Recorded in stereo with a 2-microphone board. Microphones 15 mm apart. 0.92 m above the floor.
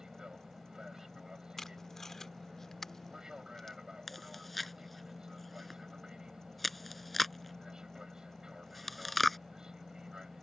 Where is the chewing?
5° left (ahead or behind).